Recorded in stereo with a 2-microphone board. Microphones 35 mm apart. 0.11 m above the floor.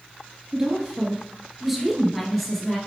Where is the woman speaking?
25° right (ahead or behind), 1.5 m; by 2.8 s 5° left (ahead or behind), 2.0 m.